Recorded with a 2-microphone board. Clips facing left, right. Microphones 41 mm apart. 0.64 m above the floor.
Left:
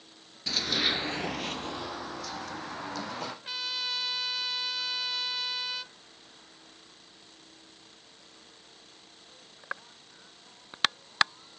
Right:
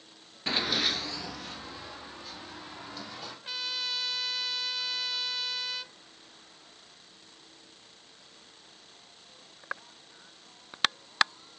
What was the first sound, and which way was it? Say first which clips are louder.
Running footsteps: even; 30° right (ahead or behind).